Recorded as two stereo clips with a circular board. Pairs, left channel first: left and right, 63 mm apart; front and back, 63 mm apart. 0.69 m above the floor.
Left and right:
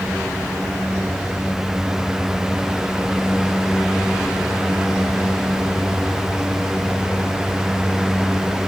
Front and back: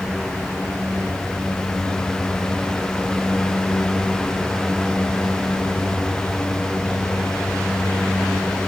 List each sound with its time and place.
Only background noise.